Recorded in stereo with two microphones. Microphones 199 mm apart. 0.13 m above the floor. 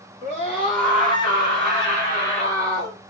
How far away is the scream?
About 1.6 m.